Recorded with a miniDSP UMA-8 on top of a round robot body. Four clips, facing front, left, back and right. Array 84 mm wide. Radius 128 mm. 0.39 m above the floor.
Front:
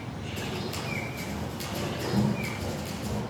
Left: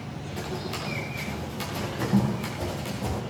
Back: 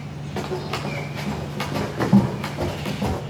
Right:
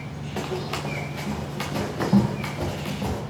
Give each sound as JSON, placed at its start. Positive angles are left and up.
{"t": 0.4, "sound": "running footsteps", "azimuth_deg": -145, "distance_m": 3.5}